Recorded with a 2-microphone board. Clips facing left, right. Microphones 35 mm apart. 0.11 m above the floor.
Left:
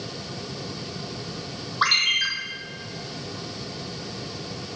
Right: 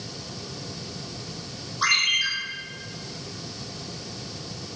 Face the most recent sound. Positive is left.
turn(degrees=40)  # may be behind; listen again after turning